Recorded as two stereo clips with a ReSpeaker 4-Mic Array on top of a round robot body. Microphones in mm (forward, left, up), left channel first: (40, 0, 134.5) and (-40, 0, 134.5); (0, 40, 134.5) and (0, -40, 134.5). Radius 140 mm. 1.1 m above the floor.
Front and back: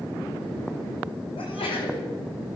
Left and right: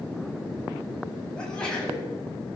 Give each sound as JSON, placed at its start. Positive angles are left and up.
{"t": 1.4, "sound": "a sneeze", "azimuth_deg": 10, "distance_m": 9.0}